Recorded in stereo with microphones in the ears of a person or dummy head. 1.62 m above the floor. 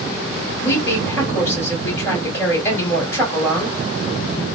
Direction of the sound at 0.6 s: 15° left (ahead or behind).